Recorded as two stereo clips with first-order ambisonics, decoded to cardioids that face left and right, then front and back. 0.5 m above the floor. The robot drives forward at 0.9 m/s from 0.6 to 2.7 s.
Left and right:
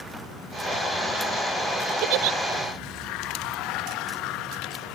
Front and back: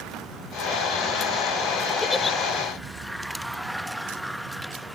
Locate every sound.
2.0 s a giggle: 75° right; by 2.4 s 80° right